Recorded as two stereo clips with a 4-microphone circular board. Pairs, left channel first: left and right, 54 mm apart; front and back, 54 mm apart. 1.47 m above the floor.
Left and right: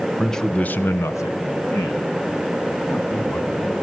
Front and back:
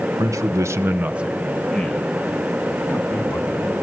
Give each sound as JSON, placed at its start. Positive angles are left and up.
{"t": 0.2, "sound": "a man speaking", "azimuth_deg": 175, "distance_m": 1.2}